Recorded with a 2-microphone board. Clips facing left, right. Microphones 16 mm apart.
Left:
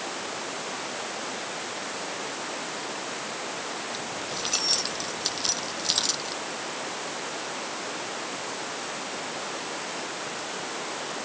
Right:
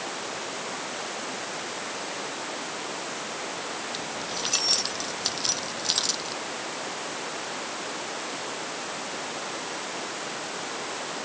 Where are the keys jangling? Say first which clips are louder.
Even; 10° right (ahead or behind); by 6.4 s centre (ahead or behind).